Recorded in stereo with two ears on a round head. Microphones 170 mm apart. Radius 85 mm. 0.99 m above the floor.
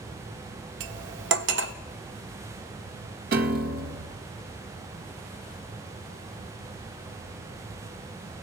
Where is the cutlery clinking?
70° right (ahead or behind), 1.2 m.